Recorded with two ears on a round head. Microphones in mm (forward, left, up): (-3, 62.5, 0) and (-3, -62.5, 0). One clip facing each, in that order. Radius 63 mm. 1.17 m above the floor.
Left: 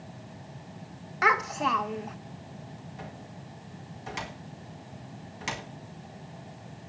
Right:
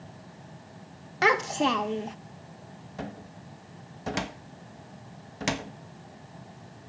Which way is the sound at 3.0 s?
60° right (ahead or behind).